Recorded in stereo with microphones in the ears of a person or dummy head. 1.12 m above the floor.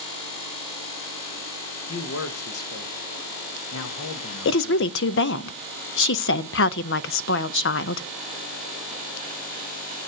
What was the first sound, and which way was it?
A man speaking, 70° left (ahead or behind).